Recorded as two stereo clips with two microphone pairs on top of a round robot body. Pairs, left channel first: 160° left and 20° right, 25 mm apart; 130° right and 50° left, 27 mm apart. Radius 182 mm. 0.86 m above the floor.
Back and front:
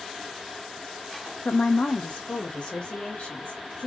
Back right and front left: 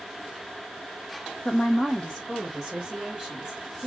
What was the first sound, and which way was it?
A woman speaking, 175° right.